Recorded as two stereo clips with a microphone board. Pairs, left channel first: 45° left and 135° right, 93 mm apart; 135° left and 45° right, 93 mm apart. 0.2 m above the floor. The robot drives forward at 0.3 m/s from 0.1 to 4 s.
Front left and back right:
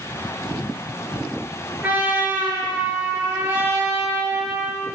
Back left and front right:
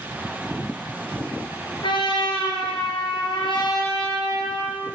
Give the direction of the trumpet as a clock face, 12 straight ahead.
7 o'clock.